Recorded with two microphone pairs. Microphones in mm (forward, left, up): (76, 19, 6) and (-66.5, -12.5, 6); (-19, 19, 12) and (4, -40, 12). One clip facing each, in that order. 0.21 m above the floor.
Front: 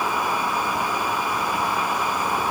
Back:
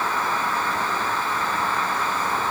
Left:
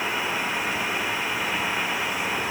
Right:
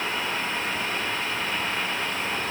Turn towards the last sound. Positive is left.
No sound to turn to.